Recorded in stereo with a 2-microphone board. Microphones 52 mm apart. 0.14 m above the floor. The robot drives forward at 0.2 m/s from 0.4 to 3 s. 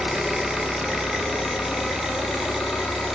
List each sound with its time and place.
0.0 s an engine running: 10° right (ahead or behind), 1.0 m; by 3.1 s 5° right (ahead or behind), 1.5 m